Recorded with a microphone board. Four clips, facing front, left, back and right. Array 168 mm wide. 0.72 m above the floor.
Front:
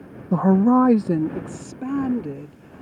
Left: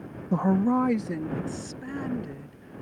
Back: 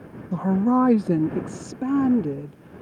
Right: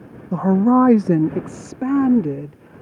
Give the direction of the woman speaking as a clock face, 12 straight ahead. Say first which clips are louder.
Right 8 dB, front 4 dB; 12 o'clock.